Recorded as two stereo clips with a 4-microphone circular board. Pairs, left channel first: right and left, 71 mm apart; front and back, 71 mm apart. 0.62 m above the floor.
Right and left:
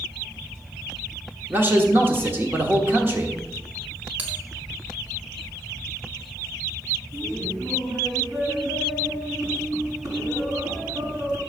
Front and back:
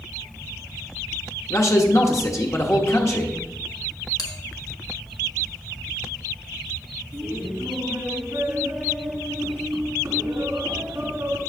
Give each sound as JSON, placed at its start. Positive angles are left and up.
{"t": 1.5, "sound": "a man speaking", "azimuth_deg": 35, "distance_m": 1.2}
{"t": 4.2, "sound": "a bell", "azimuth_deg": 25, "distance_m": 1.7}
{"t": 7.1, "sound": "laughter", "azimuth_deg": 135, "distance_m": 4.5}